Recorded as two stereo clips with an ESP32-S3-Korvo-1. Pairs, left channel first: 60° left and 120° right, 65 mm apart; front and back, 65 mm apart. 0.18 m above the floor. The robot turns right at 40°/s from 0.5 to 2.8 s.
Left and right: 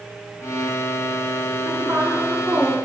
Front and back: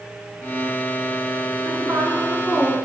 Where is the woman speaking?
150° right, 2 m; by 2.9 s 105° right, 2 m.